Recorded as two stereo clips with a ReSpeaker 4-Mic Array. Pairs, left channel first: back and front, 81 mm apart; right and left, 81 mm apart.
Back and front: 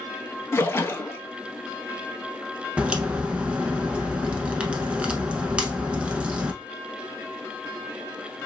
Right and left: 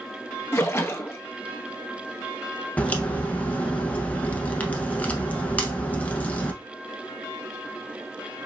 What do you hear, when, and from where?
0.5 s a splash: 135° right, 0.7 m
2.8 s a crack: 55° right, 0.7 m